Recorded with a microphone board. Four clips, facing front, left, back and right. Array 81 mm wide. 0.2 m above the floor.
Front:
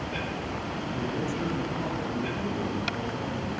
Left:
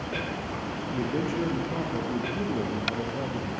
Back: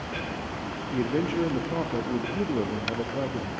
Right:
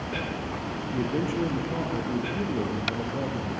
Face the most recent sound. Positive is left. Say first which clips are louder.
# right 1 dB, back 7 dB
turn(degrees=-175)